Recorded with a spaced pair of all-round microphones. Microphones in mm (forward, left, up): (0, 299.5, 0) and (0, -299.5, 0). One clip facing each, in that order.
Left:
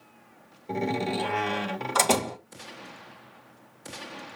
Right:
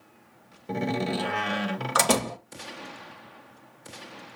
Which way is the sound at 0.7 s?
40° right (ahead or behind).